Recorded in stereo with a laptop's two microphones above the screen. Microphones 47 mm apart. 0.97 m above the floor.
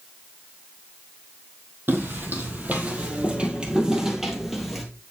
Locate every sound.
1.9 s footsteps: 45° right (ahead or behind), 2.5 m; by 4.8 s 5° left (ahead or behind), 1.8 m